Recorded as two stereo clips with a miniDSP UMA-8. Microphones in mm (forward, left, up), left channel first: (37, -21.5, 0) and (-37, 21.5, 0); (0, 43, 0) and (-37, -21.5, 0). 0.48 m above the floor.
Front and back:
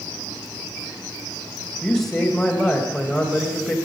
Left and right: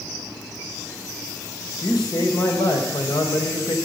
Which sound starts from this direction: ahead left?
A man speaking, at 1.8 s.